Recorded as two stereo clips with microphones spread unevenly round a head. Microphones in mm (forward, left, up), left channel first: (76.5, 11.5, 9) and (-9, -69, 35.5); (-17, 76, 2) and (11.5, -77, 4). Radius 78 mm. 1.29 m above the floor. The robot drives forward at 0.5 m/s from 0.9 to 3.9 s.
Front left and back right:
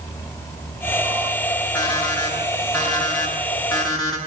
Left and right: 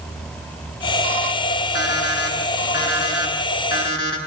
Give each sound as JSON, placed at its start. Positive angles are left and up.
{"t": 1.8, "sound": "an alarm clock", "azimuth_deg": 125, "distance_m": 8.0}